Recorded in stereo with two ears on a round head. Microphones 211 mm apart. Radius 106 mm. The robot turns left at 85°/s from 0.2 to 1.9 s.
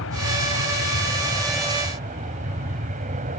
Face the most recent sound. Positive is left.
turn(degrees=-35)